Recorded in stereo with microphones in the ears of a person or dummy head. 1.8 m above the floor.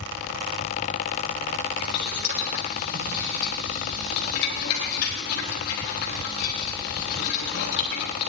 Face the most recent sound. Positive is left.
turn(degrees=55)  # may be behind; listen again after turning